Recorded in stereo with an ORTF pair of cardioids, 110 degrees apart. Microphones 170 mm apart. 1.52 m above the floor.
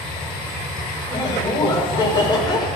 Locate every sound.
0.0 s a machine running: 25° left, 8 m
1.1 s laughter: 25° left, 6 m